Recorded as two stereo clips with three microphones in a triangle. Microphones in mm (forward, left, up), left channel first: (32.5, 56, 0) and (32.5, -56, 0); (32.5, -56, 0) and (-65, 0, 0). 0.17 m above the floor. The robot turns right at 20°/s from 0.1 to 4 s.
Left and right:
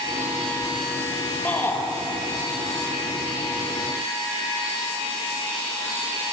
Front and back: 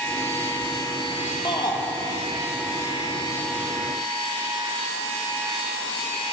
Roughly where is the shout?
Ahead.